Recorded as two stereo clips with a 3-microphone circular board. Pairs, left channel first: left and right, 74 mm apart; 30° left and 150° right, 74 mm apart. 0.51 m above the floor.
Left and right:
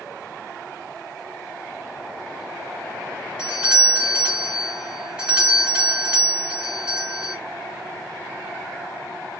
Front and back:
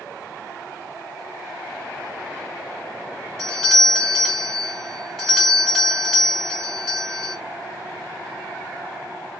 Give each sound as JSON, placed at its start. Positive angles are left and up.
{"t": 3.4, "sound": "a doorbell", "azimuth_deg": -45, "distance_m": 1.9}